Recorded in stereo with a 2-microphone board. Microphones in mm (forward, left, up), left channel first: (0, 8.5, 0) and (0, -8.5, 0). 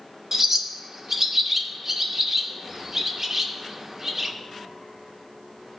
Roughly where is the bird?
Right.